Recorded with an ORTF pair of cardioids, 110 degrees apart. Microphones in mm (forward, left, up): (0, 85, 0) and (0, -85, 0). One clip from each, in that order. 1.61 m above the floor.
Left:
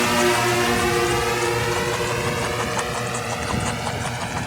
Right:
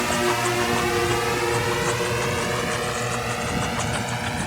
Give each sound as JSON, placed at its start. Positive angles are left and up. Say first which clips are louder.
{"t": 0.0, "sound": "a drone", "louder": "left 3 dB", "azimuth_deg": 25}